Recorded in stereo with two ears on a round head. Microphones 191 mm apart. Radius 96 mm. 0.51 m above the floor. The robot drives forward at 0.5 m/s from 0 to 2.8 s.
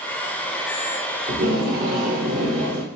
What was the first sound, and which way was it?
Tape being pulled, 40° right (ahead or behind).